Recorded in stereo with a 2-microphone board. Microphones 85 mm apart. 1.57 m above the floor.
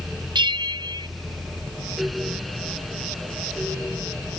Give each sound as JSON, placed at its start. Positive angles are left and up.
{"t": 0.3, "sound": "a bell", "side_deg": -65}